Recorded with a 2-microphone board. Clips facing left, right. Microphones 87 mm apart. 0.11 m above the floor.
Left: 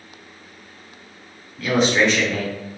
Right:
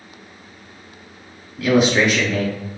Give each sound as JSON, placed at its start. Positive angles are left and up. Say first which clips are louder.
{"t": 1.6, "sound": "a man speaking", "louder": "right 2 dB", "side_deg": -10, "distance_m": 2.0}